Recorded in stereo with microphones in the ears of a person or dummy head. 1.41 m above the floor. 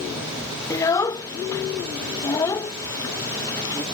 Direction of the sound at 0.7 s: 20° left (ahead or behind).